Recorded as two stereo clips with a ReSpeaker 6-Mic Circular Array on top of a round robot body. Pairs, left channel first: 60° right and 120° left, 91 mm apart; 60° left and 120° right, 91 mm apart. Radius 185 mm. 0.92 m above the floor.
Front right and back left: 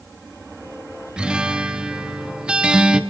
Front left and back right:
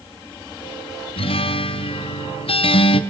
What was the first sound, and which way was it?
A guitar, 40° left.